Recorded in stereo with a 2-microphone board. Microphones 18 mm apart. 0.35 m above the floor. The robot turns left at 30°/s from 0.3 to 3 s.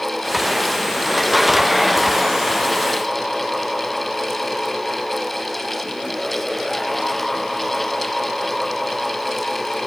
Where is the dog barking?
I don't hear a dog barking.